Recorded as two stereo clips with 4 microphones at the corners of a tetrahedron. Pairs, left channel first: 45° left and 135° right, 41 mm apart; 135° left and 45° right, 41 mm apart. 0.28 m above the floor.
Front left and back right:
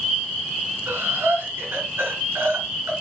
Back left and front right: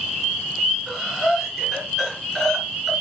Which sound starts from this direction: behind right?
Breathing, at 0.9 s.